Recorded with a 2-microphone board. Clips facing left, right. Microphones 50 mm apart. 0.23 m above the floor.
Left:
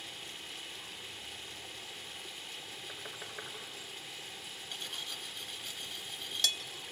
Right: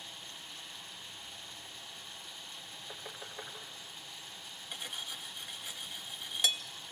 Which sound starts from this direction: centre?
Cutlery clinking, at 4.7 s.